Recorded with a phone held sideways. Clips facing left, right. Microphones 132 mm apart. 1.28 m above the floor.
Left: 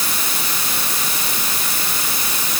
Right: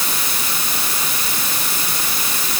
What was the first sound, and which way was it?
Only background noise.